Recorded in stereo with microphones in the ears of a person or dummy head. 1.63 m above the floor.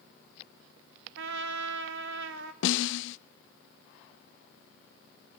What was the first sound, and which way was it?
A trumpet, 65° right (ahead or behind).